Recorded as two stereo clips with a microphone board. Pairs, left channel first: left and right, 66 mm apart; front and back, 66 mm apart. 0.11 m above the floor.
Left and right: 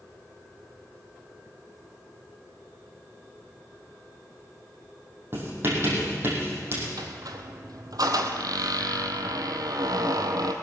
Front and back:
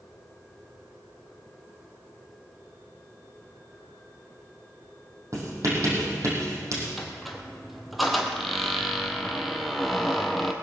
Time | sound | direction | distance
5.3 | writing | 140° right | 4.5 m
7.0 | a squeak | 90° right | 1.3 m